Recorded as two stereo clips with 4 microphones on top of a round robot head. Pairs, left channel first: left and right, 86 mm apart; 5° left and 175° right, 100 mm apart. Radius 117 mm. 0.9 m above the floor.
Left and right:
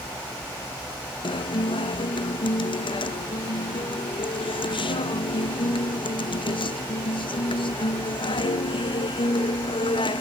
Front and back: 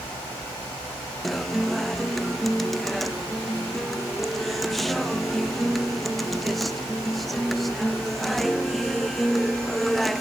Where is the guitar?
90° left, 1.0 m.